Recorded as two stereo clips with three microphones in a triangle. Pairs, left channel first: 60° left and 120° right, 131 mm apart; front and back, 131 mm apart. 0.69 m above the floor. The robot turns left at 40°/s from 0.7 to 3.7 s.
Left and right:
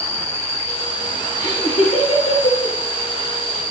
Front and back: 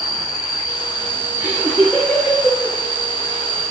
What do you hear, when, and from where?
0.0 s an insect: 130° left, 4.5 m; by 3.7 s 10° left, 4.5 m
1.4 s laughter: 110° left, 2 m; by 2.8 s 55° left, 2 m